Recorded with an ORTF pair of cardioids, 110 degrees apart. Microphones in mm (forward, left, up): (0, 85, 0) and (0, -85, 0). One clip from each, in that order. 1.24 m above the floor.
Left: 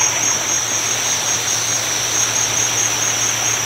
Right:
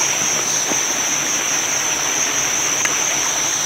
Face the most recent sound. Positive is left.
turn(degrees=5)